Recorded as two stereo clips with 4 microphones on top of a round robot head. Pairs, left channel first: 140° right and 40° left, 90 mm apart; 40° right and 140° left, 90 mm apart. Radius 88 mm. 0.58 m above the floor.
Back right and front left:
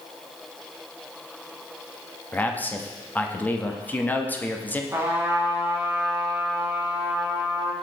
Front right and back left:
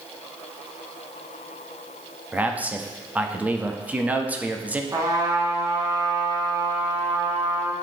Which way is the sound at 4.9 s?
100° left.